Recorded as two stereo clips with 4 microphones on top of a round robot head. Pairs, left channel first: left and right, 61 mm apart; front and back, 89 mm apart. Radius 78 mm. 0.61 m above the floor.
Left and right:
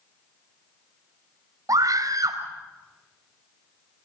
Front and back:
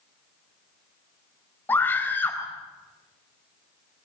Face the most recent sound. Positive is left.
turn(degrees=-70)